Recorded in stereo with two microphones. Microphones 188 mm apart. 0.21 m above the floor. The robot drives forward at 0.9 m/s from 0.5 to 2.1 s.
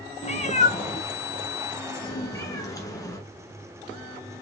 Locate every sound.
0.2 s a cat meowing: 35° left (ahead or behind), 0.8 m; by 3.2 s 15° left (ahead or behind), 1.6 m